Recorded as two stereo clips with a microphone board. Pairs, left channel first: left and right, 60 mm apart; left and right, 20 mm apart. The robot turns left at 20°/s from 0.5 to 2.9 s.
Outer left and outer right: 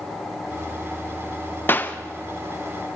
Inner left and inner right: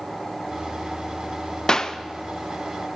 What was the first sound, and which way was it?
A clap, 35° left (ahead or behind).